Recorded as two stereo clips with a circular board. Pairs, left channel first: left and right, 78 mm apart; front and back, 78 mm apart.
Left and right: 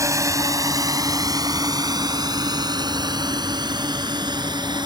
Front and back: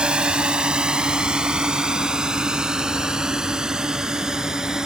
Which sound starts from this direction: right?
A drone, at 0.0 s.